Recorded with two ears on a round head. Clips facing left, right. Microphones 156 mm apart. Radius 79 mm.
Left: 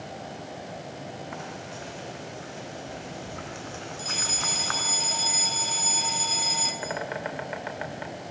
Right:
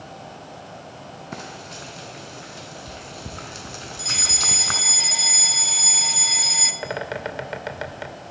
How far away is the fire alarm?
About 1.6 m.